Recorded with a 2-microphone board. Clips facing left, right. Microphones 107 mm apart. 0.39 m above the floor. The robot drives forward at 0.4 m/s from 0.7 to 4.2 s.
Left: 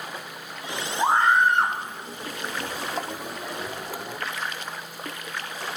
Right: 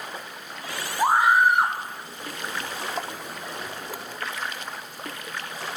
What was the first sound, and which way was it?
A scream, 10° right (ahead or behind).